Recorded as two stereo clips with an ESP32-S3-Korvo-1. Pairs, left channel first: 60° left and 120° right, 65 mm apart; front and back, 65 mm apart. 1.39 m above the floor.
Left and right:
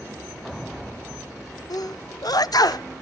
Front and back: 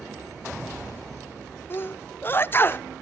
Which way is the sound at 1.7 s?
55° left.